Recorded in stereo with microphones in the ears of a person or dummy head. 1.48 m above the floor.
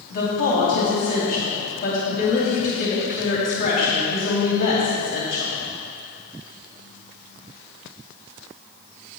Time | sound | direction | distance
0.1 | a woman speaking | 40° left (ahead or behind) | 3.5 m